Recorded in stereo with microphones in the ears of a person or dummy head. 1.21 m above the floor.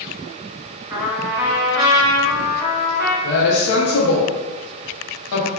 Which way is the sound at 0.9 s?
20° right (ahead or behind).